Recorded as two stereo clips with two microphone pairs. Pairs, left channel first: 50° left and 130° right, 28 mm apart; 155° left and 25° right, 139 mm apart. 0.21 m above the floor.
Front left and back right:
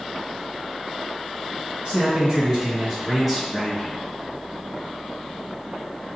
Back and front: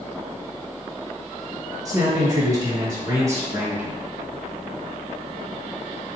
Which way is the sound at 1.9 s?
85° right.